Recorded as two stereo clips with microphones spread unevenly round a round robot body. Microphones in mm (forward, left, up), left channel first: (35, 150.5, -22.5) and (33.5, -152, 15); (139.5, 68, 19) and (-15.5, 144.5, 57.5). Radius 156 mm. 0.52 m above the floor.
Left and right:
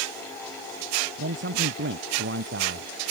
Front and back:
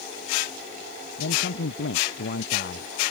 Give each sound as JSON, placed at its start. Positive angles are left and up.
{"t": 1.2, "sound": "a man speaking", "azimuth_deg": -40}